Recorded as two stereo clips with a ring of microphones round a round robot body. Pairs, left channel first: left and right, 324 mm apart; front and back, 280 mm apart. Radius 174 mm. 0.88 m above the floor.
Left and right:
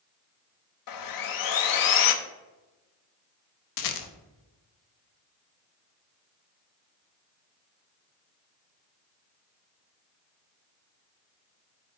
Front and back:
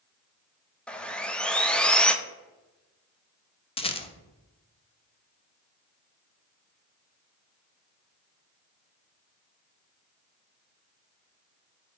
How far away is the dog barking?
No dog barking in this recording.